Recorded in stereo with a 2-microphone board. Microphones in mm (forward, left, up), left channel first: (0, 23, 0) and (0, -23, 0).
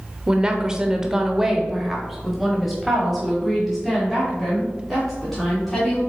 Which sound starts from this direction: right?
A woman speaking, at 0.3 s.